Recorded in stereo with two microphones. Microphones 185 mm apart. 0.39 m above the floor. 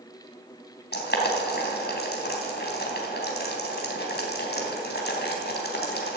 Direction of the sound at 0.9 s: 65° left (ahead or behind).